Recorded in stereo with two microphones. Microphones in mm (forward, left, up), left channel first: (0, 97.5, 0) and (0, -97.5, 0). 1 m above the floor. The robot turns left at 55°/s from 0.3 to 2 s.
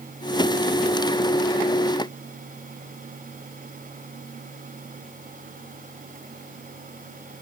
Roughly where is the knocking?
No knocking in this recording.